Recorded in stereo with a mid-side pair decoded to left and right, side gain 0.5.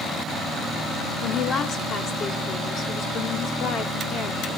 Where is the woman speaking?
60° left, 4 m.